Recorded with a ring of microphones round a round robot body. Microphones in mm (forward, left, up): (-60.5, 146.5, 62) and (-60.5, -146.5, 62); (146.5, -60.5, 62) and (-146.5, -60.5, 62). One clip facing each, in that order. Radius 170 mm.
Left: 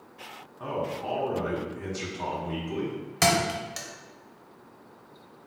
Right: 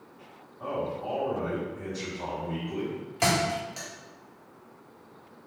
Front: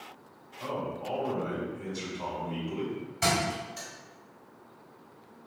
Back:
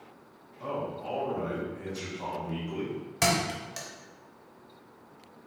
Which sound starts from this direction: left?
A man speaking, at 0.6 s.